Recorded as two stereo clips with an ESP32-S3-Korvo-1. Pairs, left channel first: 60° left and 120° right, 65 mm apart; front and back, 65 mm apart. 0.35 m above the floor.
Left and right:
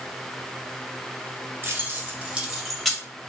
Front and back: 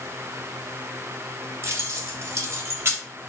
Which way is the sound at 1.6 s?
155° right.